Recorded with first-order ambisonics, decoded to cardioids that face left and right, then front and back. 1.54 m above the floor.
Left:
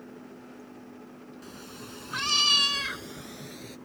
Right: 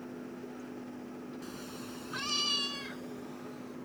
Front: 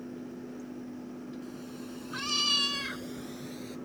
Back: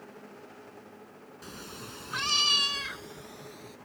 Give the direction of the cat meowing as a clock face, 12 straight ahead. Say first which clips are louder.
Even, even; 6 o'clock.